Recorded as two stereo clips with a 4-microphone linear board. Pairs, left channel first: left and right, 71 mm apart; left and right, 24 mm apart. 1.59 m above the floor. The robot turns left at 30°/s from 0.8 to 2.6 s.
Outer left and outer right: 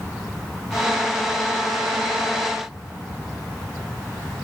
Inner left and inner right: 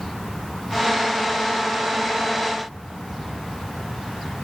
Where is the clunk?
I don't hear a clunk.